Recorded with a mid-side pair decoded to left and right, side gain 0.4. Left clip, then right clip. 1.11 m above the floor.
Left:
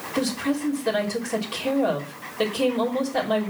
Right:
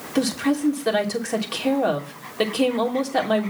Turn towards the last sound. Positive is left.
turn(degrees=-45)